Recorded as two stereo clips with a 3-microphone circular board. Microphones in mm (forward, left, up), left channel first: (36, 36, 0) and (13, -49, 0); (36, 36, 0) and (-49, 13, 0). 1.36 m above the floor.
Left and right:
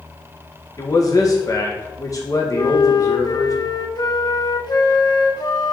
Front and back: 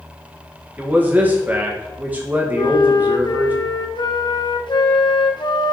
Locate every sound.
0.8 s a man speaking: 125° left, 1.5 m
2.5 s a flute: 40° left, 0.8 m